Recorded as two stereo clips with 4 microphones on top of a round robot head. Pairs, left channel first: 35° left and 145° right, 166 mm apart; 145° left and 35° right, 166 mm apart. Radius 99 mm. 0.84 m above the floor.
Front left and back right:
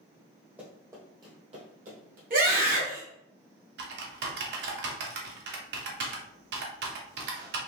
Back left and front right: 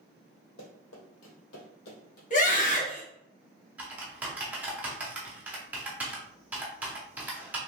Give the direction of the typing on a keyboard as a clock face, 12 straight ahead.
4 o'clock.